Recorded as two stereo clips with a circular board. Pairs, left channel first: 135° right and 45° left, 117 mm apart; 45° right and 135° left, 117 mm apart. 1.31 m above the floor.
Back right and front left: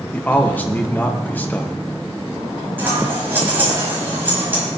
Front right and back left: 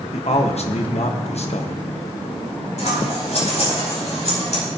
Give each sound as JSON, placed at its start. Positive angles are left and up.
{"t": 0.1, "sound": "a man speaking", "azimuth_deg": -60, "distance_m": 1.2}
{"t": 2.8, "sound": "scissors", "azimuth_deg": -30, "distance_m": 5.0}